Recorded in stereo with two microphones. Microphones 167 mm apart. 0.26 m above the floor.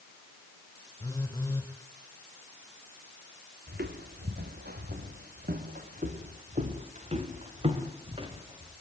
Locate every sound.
1.0 s a phone buzzing: 20° left (ahead or behind), 3 m
3.7 s footsteps: 85° right, 2.5 m; by 8.7 s 30° right (ahead or behind), 3.5 m